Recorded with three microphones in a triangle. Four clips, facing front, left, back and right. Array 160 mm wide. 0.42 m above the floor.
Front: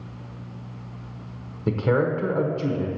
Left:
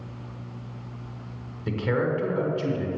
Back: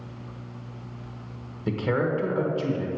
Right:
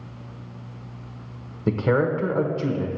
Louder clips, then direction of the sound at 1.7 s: Right 4 dB, front 3 dB; 65° right.